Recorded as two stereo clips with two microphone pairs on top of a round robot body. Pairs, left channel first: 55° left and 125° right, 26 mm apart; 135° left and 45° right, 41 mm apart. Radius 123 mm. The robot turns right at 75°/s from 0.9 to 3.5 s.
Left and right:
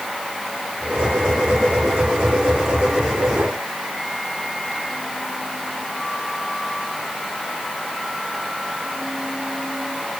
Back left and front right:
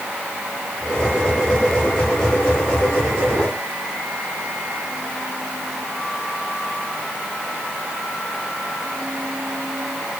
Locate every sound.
Only background noise.